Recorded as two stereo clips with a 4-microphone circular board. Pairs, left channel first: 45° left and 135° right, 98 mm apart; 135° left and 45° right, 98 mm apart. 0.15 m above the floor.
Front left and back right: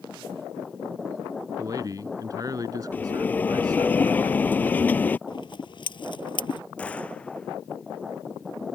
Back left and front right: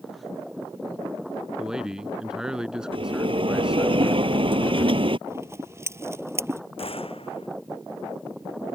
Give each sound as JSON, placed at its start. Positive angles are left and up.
{"t": 1.6, "sound": "a man speaking", "azimuth_deg": -125}
{"t": 2.9, "sound": "a bell", "azimuth_deg": -25}
{"t": 5.3, "sound": "scissors", "azimuth_deg": 15}
{"t": 6.8, "sound": "a gunshot", "azimuth_deg": 120}